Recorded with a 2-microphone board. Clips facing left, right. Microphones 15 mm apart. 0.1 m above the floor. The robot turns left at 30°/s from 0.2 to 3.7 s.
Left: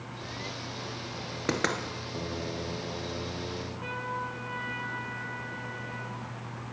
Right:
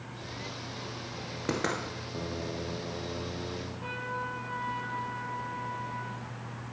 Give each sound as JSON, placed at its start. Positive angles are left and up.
{"t": 1.5, "sound": "knocking", "side_deg": 30, "distance_m": 1.4}
{"t": 3.8, "sound": "a trumpet", "side_deg": 30, "distance_m": 4.0}